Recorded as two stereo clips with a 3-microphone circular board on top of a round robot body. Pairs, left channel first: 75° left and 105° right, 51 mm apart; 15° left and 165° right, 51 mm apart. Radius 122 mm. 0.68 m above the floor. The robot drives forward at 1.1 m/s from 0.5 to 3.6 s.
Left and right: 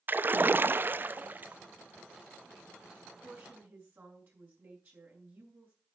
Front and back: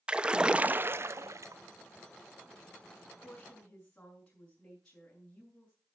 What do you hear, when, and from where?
0.1 s a splash: 105° right, 0.8 m; by 1.6 s 160° right, 1.6 m
3.0 s a woman speaking: 60° right, 8 m; by 5.8 s 65° right, 8 m